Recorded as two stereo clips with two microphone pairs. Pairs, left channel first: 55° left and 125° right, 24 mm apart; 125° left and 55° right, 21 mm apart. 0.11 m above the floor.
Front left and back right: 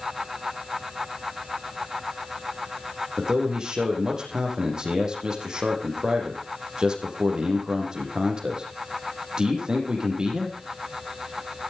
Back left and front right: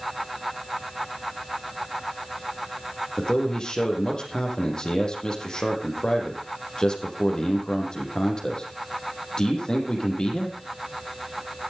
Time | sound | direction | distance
3.2 | a man speaking | 175° left | 5.5 m